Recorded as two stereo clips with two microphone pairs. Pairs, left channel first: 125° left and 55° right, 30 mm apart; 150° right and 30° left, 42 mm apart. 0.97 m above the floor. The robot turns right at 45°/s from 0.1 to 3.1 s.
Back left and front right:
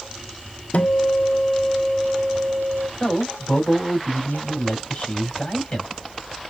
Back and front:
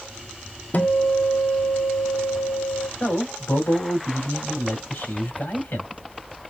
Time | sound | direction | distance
0.7 | a guitar | 160° left | 0.7 m
3.0 | a man speaking | 175° left | 3.5 m